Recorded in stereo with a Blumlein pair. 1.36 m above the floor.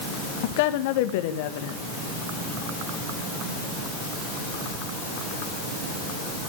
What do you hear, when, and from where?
0.4 s a woman speaking: 50° left, 1.8 m